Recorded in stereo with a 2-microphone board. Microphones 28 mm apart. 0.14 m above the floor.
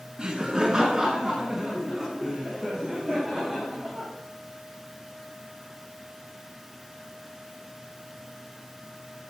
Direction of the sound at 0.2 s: 30° right (ahead or behind).